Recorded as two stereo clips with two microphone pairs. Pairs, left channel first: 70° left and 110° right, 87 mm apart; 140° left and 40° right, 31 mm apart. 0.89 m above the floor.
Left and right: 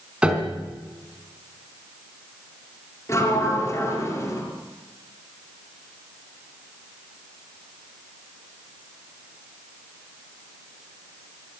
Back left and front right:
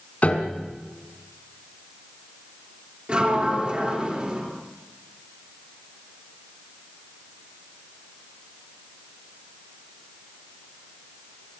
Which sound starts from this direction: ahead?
A sliding door, at 3.1 s.